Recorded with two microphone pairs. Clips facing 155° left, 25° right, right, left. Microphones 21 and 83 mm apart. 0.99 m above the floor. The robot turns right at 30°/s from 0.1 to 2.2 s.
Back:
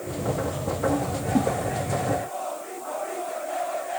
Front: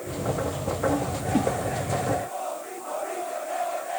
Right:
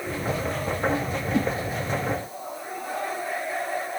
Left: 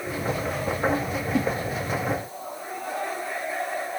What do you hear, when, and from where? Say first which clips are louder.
1.3 s a whoosh: back 1 dB, right 1 dB; 30° right, 6.5 m; by 1.5 s 25° right, 6.5 m